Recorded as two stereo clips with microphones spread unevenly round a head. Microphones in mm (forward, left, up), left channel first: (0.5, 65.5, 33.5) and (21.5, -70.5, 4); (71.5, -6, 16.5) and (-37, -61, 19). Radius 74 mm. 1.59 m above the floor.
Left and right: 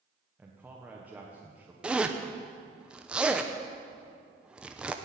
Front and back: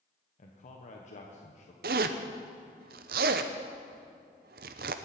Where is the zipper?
170° right, 0.7 m.